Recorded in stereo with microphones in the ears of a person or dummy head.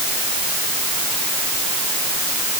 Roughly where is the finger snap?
I don't hear a finger snap.